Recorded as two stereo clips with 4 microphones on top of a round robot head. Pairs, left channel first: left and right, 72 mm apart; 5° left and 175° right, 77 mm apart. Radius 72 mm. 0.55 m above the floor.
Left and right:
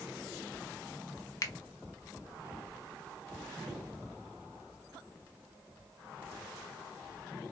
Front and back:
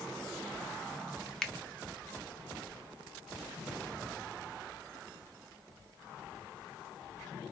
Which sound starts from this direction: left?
A finger snap, at 1.4 s.